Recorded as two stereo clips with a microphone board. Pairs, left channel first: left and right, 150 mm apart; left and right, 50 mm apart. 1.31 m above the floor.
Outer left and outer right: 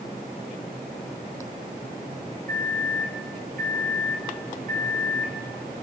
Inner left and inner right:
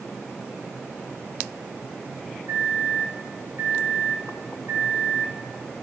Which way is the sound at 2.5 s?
65° right (ahead or behind).